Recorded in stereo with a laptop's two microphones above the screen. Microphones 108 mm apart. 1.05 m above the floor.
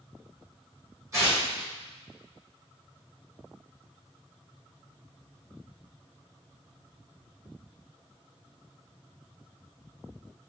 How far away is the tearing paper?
About 2 m.